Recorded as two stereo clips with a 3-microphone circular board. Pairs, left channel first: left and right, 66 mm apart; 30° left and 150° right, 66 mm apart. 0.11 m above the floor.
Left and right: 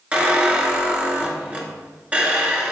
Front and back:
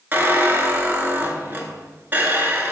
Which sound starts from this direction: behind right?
A squeak, at 0.1 s.